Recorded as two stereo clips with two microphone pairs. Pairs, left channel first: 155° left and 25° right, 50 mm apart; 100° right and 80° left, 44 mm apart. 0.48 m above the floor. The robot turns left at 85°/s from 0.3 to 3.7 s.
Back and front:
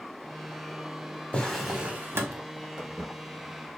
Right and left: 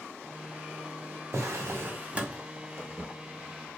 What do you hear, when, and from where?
1.3 s a drawer: 95° left, 0.6 m; by 2.4 s 5° left, 0.6 m
2.8 s footsteps: 60° left, 1.2 m; by 3.8 s straight ahead, 0.7 m